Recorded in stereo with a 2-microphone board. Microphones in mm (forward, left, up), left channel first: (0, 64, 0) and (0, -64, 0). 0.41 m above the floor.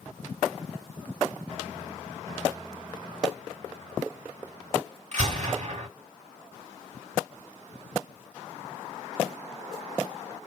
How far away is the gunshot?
About 2.5 m.